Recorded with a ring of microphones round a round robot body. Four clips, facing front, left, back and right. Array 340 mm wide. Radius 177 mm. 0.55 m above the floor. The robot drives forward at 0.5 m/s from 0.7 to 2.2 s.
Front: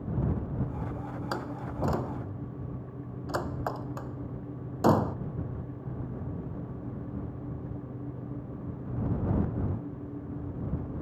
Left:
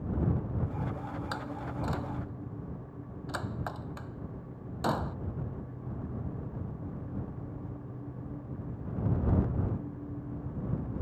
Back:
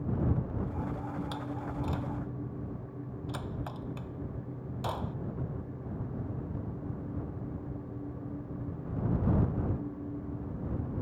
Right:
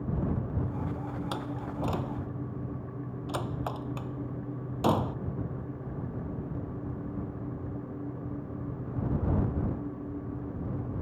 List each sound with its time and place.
1.3 s a door slam: 20° right